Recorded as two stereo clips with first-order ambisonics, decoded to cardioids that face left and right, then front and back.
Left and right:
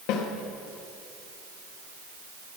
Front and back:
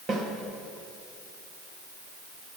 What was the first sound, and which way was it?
A snare drum, 110° left.